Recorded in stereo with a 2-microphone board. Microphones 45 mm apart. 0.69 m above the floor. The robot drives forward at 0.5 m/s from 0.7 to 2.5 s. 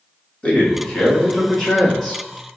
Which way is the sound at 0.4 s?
25° left (ahead or behind).